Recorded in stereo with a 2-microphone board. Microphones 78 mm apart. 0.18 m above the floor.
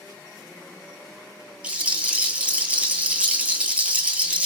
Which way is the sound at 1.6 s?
15° right (ahead or behind).